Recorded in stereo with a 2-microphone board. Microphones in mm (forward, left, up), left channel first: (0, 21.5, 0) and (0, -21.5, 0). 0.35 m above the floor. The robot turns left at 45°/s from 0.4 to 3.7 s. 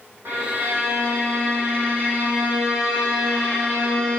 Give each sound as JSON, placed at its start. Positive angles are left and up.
{"t": 0.2, "sound": "a violin", "azimuth_deg": -55, "distance_m": 5.5}